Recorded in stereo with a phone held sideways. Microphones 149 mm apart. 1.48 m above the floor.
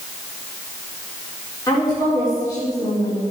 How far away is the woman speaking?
About 4 m.